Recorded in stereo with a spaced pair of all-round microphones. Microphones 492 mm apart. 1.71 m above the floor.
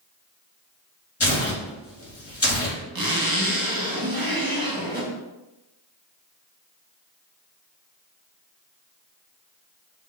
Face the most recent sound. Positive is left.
turn(degrees=-45)  # may be behind; listen again after turning